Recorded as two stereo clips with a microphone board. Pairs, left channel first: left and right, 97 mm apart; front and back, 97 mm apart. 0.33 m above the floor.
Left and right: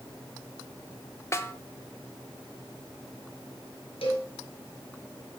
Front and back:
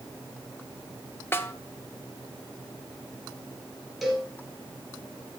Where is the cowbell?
90° left, 3 m.